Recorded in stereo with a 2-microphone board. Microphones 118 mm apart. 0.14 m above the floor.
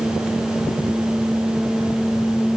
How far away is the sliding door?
No sliding door in this recording.